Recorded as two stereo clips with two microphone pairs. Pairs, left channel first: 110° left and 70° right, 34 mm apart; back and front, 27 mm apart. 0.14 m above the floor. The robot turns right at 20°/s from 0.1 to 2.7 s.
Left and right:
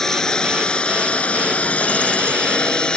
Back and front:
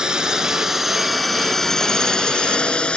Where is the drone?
45° left; by 3.0 s 165° left.